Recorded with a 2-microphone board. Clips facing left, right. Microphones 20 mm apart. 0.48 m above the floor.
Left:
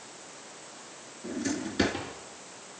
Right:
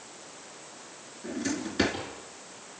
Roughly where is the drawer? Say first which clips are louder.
Even; centre.